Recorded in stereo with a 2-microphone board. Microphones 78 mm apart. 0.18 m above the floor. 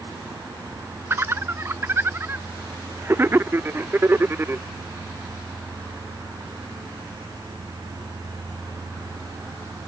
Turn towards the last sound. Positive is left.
turn(degrees=-30)  # may be behind; listen again after turning